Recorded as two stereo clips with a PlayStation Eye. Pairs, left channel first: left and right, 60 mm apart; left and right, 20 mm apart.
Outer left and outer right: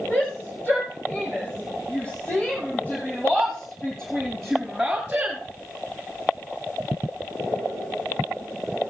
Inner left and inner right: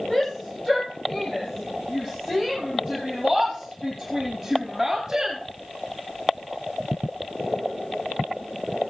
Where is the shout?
35° left (ahead or behind), 6.5 m; by 5.4 s 20° right (ahead or behind), 2.0 m.